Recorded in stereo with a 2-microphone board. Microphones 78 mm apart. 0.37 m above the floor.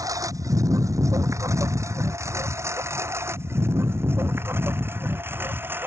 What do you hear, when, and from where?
0.0 s a lawn mower: 50° right (ahead or behind); by 5.9 s 30° right (ahead or behind)